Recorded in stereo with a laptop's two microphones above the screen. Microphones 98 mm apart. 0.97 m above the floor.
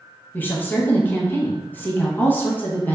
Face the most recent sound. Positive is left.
turn(degrees=20)  # may be behind; listen again after turning